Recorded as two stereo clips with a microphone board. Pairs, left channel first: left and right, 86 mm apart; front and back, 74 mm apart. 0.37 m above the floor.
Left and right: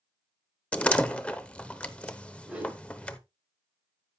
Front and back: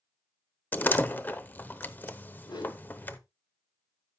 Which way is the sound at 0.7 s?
25° left.